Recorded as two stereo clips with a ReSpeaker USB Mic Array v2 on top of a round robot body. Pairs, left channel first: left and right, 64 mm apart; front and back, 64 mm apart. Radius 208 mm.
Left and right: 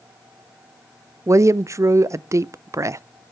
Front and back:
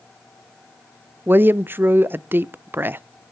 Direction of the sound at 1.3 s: 125° right.